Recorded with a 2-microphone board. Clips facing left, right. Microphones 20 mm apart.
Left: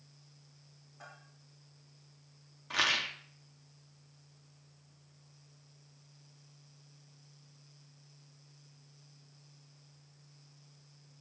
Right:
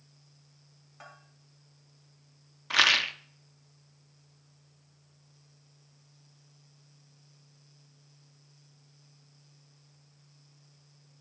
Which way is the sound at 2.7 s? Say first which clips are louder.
Right 7 dB; 45° right (ahead or behind).